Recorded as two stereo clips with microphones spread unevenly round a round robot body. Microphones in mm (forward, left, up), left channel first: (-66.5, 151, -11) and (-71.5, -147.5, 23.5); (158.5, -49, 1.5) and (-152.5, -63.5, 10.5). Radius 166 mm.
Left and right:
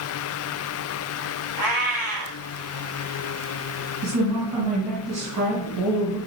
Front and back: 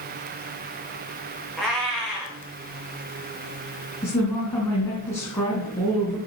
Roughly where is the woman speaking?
Right.